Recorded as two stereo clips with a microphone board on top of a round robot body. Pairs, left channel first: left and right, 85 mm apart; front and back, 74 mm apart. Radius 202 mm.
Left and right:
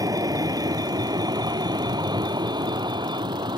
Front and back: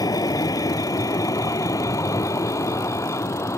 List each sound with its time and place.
0.0 s a vehicle: 40° right; by 3.6 s 55° right